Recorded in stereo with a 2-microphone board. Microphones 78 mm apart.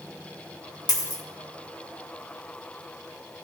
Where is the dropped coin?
65° left (ahead or behind), 1.5 m.